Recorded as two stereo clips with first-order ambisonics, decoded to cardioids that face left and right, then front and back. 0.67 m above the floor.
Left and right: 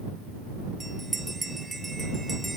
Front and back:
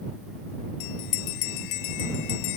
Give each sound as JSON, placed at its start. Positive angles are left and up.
{"t": 0.8, "sound": "a bell", "azimuth_deg": -5}